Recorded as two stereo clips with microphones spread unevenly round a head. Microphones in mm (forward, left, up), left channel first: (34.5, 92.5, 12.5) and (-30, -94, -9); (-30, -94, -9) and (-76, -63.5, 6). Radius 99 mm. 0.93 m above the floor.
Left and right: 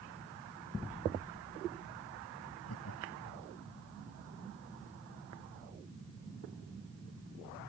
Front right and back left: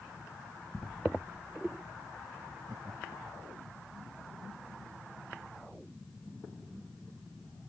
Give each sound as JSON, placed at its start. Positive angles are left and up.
{"t": 2.7, "sound": "laughter", "azimuth_deg": 85}